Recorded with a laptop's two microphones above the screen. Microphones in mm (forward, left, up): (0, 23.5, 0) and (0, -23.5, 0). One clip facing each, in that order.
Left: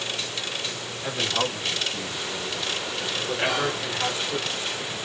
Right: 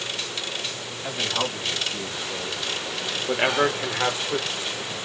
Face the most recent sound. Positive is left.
turn(degrees=5)  # may be behind; listen again after turning